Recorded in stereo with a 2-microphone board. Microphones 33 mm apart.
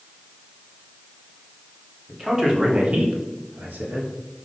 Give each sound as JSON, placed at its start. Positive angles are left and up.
{"t": 2.1, "sound": "a man speaking", "side_deg": -15, "distance_m": 1.3}